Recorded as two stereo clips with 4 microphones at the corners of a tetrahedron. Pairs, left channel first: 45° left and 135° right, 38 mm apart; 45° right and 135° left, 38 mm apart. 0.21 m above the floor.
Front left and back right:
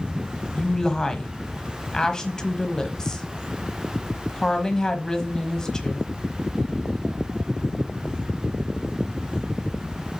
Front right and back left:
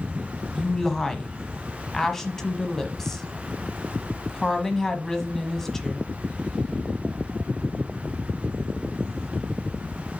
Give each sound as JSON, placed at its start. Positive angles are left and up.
{"t": 0.6, "sound": "a woman speaking", "azimuth_deg": 15, "distance_m": 1.1}